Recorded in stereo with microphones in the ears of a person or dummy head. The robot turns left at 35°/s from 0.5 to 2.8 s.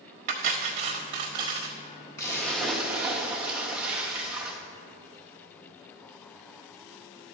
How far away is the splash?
About 1.2 m.